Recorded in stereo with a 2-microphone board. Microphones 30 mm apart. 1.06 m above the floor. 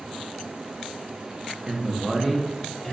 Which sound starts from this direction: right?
A man speaking, at 1.7 s.